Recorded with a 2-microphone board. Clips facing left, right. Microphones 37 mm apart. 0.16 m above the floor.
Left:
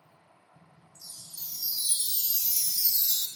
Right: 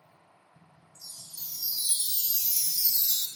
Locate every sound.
0.9 s a chime: 5° left (ahead or behind), 0.9 m